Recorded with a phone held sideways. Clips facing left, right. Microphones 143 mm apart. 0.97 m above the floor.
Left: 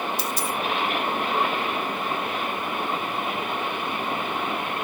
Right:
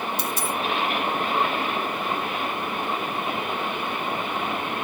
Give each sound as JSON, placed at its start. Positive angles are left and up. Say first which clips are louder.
{"t": 0.2, "sound": "a dropped coin", "louder": "even", "side_deg": -55, "distance_m": 0.9}